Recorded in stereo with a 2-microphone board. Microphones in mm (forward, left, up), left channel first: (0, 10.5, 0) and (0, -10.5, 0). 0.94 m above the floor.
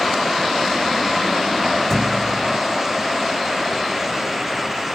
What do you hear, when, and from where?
1.9 s a thud: 20° left (ahead or behind)